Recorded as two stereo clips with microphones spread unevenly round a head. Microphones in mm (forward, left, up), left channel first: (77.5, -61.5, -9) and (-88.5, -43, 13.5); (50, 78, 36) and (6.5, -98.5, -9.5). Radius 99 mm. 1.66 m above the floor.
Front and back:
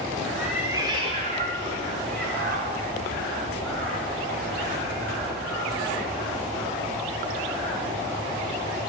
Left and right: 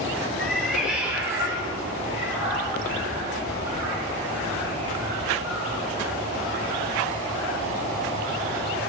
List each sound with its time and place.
0.4 s a cat meowing: 105° left, 1.4 m; by 5.8 s straight behind, 7 m